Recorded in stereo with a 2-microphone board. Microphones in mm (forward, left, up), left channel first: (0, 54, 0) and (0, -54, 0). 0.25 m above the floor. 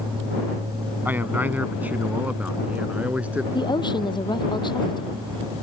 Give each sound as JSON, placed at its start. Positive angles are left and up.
{"t": 1.1, "sound": "a man speaking", "side_deg": -20}
{"t": 3.5, "sound": "a woman speaking", "side_deg": 45}